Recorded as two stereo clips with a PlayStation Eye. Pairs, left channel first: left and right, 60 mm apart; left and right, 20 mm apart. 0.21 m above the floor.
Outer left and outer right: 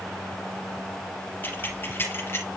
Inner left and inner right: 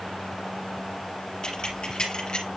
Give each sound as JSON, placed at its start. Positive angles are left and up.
{"t": 1.4, "sound": "keys jangling", "side_deg": 35, "distance_m": 3.5}